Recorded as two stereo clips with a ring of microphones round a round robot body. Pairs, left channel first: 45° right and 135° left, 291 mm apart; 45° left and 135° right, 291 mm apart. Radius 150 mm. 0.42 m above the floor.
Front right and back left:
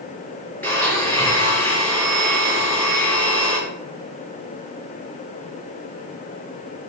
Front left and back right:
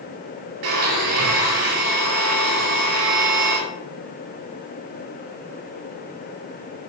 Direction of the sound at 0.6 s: 130° right.